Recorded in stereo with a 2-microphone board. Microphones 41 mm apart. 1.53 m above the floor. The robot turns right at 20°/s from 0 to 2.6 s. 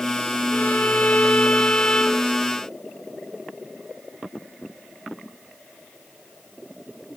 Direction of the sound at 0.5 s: 115° left.